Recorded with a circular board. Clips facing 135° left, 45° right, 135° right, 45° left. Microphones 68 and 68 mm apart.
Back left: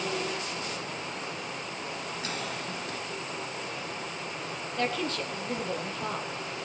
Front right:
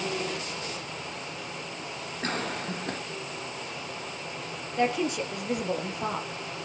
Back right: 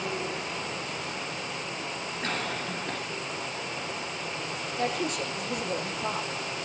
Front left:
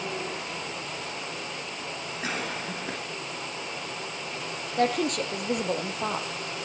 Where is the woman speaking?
30° left, 3 m.